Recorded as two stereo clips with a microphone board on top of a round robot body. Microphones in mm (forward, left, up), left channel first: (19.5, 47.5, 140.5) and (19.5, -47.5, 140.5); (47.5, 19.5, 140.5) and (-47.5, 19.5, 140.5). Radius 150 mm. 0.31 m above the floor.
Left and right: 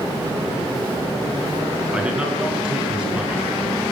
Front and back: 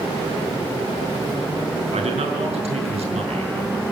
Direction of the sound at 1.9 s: 170° right.